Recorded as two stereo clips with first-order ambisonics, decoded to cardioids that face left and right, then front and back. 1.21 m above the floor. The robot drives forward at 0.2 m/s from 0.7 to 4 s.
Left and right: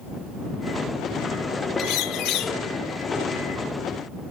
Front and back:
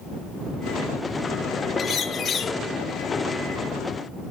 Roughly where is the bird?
Ahead left.